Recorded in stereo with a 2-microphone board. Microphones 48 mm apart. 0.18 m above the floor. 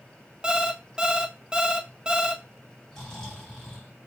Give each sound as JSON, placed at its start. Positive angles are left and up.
{"t": 0.4, "sound": "an alarm clock", "side_deg": -20, "distance_m": 0.7}
{"t": 2.9, "sound": "snoring", "side_deg": 15, "distance_m": 2.5}